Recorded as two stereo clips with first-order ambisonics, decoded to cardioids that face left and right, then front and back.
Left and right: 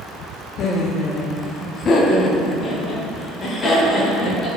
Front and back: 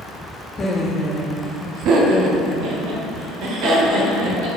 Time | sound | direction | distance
0.6 | laughter | 60° left | 0.6 m